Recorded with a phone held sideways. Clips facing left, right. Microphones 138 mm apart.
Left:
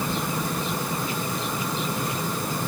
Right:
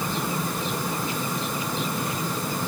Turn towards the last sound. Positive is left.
No sound to turn to.